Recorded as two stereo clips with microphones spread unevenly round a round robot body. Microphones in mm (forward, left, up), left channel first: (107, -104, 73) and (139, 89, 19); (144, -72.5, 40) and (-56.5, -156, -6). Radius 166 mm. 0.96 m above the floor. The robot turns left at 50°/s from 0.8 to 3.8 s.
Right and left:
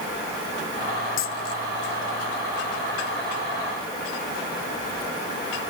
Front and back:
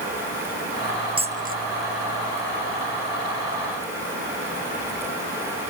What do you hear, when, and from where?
1.2 s a dropped coin: 90° right; by 1.6 s 115° right